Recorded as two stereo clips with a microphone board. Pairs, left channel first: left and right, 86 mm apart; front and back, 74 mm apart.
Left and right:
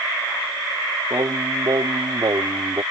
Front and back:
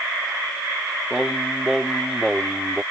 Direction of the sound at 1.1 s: 95° right.